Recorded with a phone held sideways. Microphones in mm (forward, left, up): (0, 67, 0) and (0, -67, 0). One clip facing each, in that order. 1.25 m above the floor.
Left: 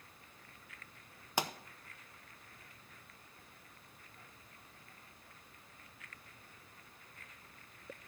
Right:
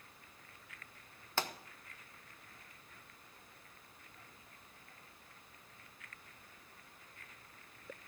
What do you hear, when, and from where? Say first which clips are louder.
1.4 s a pop: left 2 dB; 15° left (ahead or behind), 0.7 m